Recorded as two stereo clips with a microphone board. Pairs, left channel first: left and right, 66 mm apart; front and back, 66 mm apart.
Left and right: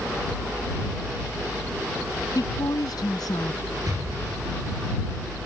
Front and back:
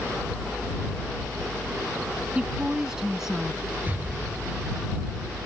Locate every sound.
2.4 s a woman speaking: 105° left; by 3.6 s 90° left
3.9 s an explosion: 115° right